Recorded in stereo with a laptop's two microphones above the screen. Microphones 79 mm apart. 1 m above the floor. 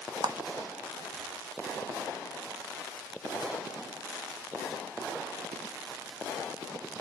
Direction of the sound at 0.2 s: 60° right (ahead or behind).